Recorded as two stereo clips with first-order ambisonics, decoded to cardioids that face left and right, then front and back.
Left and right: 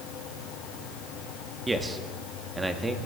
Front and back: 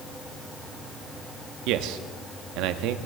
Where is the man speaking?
170° right, 1.0 m.